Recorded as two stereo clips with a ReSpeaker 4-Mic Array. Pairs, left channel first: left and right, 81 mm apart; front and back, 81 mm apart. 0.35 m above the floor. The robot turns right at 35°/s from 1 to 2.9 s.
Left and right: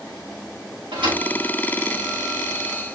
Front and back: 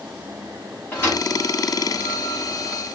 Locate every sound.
0.9 s a thud: 70° right, 5.5 m; by 1.2 s 60° right, 5.5 m